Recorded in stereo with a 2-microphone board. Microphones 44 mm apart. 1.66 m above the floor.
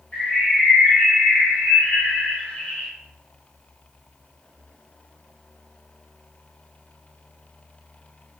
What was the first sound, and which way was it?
A bird, 35° left (ahead or behind).